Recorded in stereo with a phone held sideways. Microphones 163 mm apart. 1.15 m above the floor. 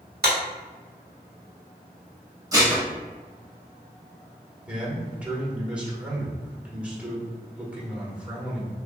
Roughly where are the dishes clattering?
Right.